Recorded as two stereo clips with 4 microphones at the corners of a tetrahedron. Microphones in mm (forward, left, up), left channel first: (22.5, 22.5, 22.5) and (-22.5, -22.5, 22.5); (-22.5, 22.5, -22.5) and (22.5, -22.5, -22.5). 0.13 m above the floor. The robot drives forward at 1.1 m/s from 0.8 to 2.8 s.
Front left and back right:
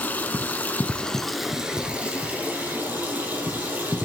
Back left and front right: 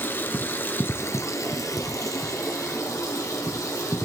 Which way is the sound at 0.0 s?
95° left.